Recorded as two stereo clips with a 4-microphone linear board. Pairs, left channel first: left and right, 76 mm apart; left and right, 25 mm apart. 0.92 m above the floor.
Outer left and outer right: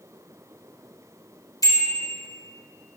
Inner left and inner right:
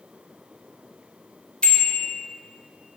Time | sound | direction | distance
1.6 | a bicycle bell | 50° left (ahead or behind) | 2.5 m